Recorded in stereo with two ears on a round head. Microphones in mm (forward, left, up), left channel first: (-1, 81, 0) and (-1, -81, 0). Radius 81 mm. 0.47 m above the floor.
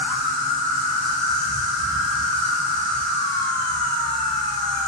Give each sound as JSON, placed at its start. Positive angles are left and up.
{"t": 0.0, "sound": "an insect", "side_deg": 25, "distance_m": 0.8}